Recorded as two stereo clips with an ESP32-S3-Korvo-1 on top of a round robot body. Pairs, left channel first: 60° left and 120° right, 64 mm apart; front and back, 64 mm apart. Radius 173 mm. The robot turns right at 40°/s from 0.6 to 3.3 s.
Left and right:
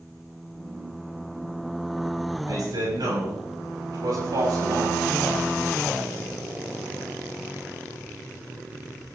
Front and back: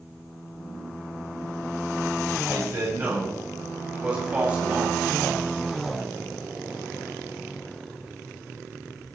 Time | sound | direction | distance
2.5 | a man speaking | 145° right | 8 m